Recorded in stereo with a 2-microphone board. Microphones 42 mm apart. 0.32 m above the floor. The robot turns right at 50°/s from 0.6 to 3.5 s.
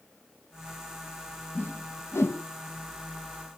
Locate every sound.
1.6 s a whoosh: 55° left (ahead or behind), 0.8 m; by 2.4 s 75° left (ahead or behind), 0.8 m